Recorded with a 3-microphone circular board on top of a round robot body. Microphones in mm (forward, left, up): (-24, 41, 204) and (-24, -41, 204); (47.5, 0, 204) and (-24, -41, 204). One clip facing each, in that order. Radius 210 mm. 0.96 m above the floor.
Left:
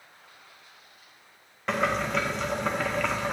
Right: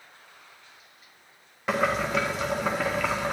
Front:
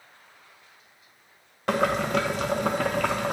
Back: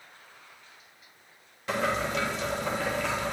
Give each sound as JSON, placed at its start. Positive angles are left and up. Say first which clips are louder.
{"t": 1.7, "sound": "boiling", "louder": "right 1 dB, front 5 dB", "azimuth_deg": -5, "distance_m": 0.8}